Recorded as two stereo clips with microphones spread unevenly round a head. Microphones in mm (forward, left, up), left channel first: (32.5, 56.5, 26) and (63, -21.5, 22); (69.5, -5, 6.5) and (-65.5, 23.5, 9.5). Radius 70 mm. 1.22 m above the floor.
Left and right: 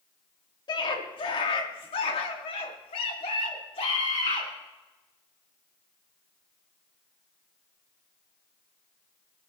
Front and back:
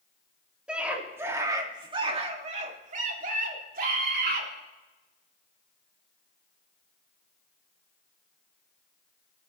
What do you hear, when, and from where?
0.7 s a scream: 85° left, 2.5 m; by 4.5 s 155° left, 3.5 m